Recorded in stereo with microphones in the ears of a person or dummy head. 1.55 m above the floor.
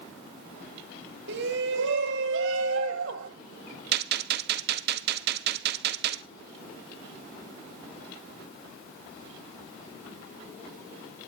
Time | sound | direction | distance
1.3 | a shout | 70° right (ahead or behind) | 3 m
3.9 | a gunshot | 65° right (ahead or behind) | 1.1 m